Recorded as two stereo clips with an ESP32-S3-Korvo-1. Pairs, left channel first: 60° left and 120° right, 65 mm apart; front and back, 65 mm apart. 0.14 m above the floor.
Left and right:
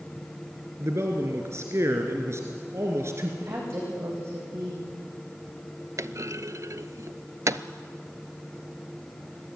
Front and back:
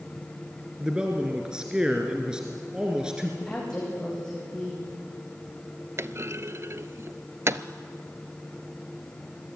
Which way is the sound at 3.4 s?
75° right.